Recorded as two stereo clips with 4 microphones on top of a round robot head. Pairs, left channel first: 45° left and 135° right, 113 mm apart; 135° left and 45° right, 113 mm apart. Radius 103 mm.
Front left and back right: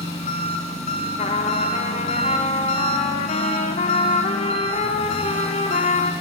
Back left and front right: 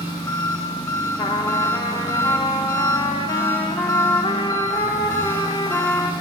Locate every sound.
0.0 s an engine running: 75° left, 1.3 m
1.2 s a trumpet: 75° left, 0.5 m